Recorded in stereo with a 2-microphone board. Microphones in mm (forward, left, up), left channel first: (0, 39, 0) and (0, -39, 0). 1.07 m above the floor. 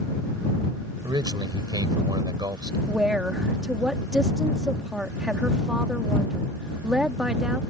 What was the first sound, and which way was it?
A man speaking, 65° right (ahead or behind).